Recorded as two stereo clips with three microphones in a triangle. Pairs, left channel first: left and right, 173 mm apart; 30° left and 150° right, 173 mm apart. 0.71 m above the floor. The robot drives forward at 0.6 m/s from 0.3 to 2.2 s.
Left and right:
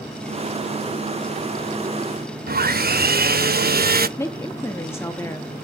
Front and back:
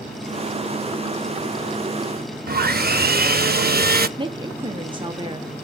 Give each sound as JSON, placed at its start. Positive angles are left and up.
{"t": 2.5, "sound": "sawing", "azimuth_deg": -120, "distance_m": 0.5}
{"t": 4.2, "sound": "a woman speaking", "azimuth_deg": 160, "distance_m": 0.9}